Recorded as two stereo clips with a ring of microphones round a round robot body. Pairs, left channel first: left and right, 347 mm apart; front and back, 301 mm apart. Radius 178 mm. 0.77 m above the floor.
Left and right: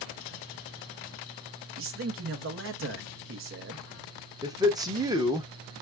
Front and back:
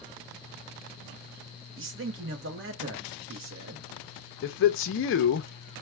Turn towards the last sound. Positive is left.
turn(degrees=-15)